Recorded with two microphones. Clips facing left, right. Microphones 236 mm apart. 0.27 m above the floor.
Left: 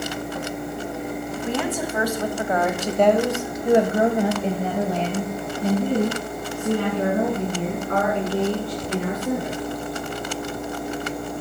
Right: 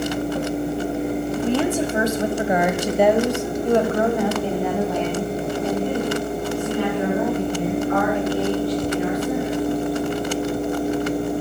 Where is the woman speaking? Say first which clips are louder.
Right 5 dB; 35° right (ahead or behind), 1.7 m; by 9.6 s 45° left (ahead or behind), 4.5 m.